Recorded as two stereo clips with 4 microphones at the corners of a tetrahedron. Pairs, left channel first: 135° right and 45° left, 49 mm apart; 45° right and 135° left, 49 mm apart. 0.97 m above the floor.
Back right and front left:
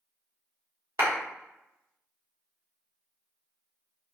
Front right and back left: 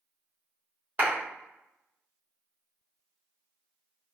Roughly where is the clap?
Left.